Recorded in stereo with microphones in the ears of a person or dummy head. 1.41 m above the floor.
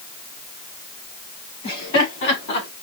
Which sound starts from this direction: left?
Laughter, at 1.6 s.